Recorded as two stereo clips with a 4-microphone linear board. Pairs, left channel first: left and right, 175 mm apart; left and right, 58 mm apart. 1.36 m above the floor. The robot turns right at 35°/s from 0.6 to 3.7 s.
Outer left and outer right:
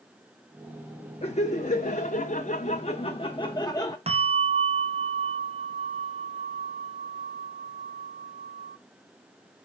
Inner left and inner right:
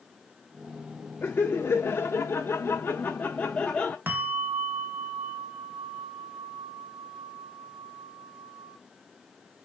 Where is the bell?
35° right (ahead or behind), 0.8 m.